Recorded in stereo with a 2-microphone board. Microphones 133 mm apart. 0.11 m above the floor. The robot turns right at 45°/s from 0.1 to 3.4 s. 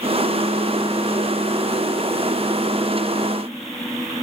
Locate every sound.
Only background noise.